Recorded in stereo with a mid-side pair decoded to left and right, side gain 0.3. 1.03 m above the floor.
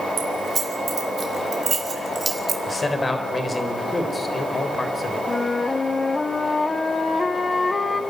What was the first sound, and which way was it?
Keys jangling, 60° right.